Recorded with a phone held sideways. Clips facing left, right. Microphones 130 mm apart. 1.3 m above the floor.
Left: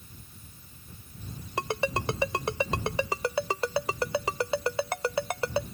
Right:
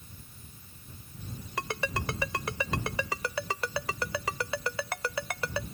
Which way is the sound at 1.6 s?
25° left (ahead or behind).